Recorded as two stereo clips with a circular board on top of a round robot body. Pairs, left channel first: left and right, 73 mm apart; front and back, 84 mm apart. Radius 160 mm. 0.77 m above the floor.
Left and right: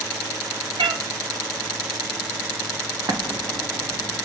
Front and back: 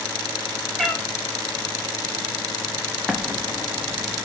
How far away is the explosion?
About 1.5 m.